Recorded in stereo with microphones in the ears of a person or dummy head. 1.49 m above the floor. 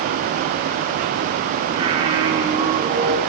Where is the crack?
No crack in this recording.